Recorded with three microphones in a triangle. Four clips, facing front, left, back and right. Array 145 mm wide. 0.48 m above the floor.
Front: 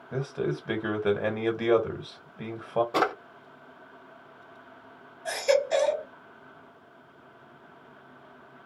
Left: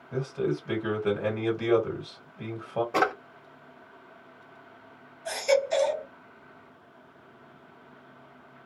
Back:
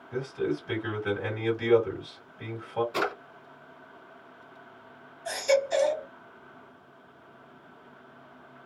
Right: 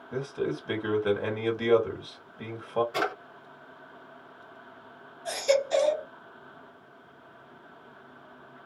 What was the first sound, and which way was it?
A man speaking, 10° right.